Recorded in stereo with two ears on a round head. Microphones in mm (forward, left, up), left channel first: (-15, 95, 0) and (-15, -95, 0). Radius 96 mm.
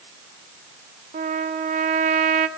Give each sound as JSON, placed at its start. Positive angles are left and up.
{"t": 1.1, "sound": "a trumpet", "side_deg": -35, "distance_m": 0.9}